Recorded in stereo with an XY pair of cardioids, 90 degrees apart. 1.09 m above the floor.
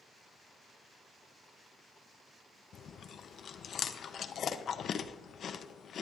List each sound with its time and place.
2.7 s chewing: 65° left, 0.6 m